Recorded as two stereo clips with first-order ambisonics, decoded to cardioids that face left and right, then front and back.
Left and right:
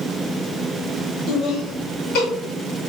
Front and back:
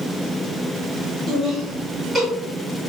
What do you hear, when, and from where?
1.3 s laughter: 130° left, 2.0 m; by 2.3 s 95° left, 1.7 m